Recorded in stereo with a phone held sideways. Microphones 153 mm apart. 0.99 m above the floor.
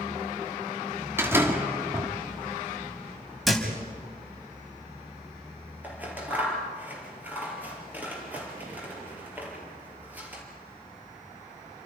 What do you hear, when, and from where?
1.2 s a door slam: 15° right (ahead or behind), 1.7 m
3.5 s a thud: centre (ahead or behind), 3 m
5.8 s scissors: 10° right (ahead or behind), 4 m